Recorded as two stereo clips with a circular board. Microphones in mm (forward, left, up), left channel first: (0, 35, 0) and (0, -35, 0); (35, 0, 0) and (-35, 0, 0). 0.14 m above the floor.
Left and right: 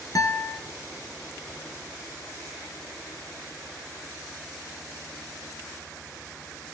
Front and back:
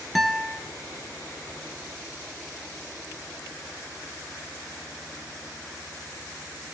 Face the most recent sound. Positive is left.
turn(degrees=90)